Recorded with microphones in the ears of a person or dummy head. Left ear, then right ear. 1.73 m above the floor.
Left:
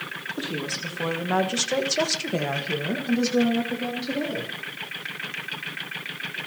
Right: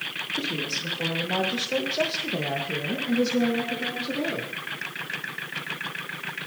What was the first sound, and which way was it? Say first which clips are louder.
A woman speaking: even; 30° left (ahead or behind).